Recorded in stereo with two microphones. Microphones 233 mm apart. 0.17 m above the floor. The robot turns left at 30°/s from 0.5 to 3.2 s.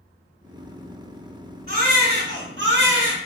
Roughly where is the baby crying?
Ahead right.